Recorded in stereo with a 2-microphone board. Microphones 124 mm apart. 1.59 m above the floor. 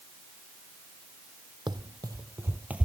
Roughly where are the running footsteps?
Right.